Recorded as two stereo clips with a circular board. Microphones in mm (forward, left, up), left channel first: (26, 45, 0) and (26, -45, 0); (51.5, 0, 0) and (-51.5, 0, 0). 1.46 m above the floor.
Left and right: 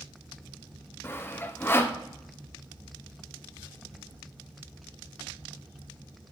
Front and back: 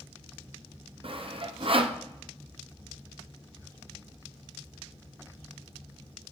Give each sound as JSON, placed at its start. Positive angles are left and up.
{"t": 1.0, "sound": "sawing", "azimuth_deg": 150, "distance_m": 0.8}